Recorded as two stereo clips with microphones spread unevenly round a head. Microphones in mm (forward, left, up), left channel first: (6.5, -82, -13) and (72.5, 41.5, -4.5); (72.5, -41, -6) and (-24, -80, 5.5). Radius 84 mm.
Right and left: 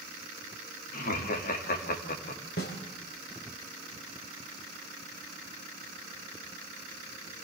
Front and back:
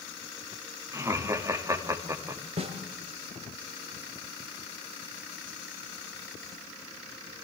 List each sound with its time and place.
0.9 s laughter: 100° right, 3 m
2.6 s a snare drum: 145° right, 3 m